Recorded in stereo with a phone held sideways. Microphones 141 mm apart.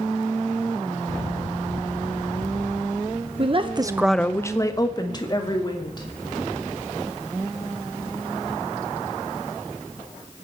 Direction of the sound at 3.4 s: 40° right (ahead or behind).